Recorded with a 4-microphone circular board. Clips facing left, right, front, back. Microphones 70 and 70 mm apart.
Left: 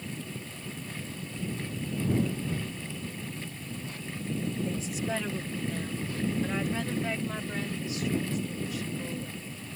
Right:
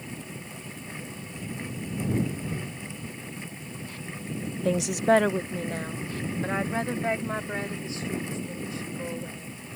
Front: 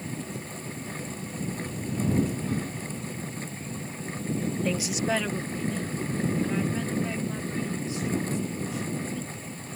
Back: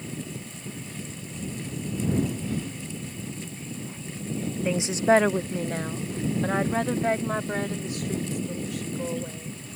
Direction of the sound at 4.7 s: 95° right.